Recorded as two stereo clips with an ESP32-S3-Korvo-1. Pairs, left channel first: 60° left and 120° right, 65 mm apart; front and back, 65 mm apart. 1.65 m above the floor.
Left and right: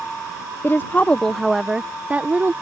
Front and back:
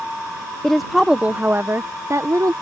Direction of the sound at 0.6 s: 75° left.